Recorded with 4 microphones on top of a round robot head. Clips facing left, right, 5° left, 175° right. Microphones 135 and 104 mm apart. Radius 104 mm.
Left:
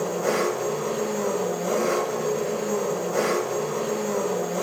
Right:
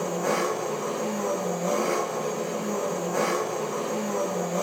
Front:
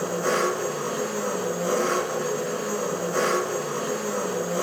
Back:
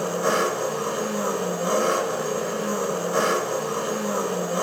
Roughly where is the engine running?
Behind left.